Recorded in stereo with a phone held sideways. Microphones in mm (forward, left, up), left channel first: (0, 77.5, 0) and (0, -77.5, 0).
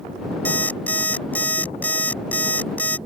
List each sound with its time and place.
0.5 s an alarm clock: 10° left (ahead or behind)